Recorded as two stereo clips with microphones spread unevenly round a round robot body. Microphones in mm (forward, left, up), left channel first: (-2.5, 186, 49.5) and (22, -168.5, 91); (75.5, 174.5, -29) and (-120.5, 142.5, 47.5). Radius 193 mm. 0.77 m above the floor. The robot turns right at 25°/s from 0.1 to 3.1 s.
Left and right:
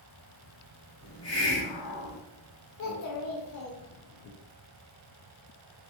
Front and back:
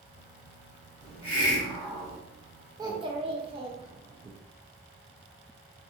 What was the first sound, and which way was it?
A hiss, 85° left.